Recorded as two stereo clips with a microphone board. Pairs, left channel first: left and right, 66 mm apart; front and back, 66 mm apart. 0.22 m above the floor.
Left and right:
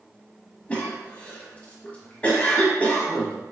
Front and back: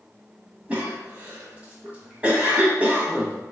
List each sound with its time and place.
0.7 s a cough: 140° left, 1.4 m